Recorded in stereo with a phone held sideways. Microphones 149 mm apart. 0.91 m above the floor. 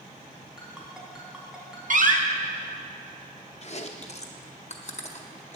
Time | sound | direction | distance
0.6 | a ringtone | 5° right (ahead or behind) | 2.5 m
1.9 | a door slam | 60° right (ahead or behind) | 0.9 m
3.6 | chewing | 50° left (ahead or behind) | 0.7 m